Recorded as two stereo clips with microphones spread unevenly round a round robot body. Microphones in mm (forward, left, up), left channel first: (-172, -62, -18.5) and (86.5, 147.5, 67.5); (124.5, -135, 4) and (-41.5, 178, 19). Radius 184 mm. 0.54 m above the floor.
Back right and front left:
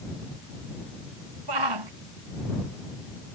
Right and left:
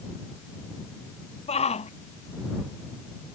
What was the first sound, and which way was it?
A shout, 10° left.